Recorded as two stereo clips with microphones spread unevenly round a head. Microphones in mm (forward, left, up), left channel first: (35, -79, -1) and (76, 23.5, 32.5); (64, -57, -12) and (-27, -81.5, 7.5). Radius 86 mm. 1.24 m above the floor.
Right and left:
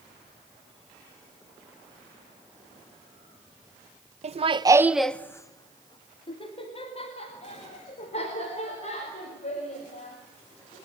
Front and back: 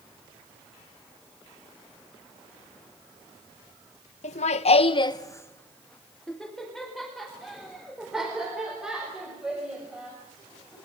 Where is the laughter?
35° left, 1.1 m; by 10.8 s 85° right, 7.5 m.